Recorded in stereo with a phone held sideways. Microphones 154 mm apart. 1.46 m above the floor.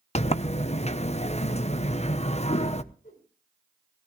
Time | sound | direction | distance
0.1 | a sliding door | 45° left (ahead or behind) | 0.8 m
3.0 | a whoosh | 65° left (ahead or behind) | 7 m